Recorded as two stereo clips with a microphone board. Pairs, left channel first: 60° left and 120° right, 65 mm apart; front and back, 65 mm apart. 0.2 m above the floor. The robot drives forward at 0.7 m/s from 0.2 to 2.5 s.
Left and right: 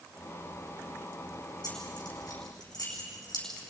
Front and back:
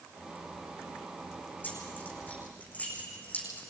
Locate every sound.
1.6 s keys jangling: 60° left, 7.5 m; by 3.6 s 65° left, 7.5 m